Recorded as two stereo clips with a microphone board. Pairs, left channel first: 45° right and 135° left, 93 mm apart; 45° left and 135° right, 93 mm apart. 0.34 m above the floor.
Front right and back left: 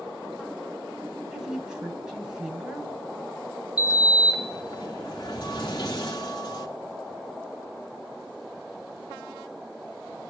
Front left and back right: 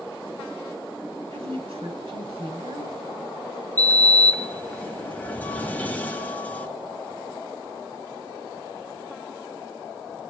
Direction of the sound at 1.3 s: 140° right.